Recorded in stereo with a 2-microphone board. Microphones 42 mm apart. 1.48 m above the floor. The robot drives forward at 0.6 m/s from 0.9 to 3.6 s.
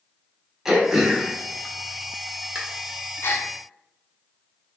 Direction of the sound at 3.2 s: 60° left (ahead or behind).